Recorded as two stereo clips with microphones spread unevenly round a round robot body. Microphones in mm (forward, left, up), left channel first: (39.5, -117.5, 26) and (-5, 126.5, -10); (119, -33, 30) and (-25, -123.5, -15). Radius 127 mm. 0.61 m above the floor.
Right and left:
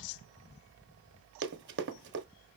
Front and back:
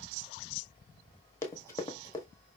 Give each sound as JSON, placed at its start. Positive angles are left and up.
{"t": 1.4, "sound": "running footsteps", "azimuth_deg": 75, "distance_m": 0.7}